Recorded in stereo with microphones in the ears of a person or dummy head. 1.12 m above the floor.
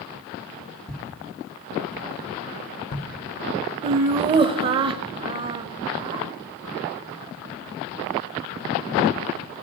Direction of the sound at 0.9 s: 5° left (ahead or behind).